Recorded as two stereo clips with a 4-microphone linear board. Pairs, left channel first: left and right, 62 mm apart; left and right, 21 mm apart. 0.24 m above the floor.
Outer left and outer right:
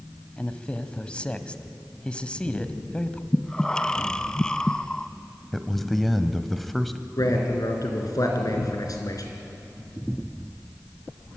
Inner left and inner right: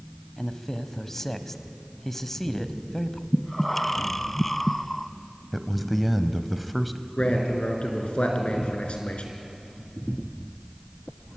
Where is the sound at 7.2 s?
65° left (ahead or behind), 4 m.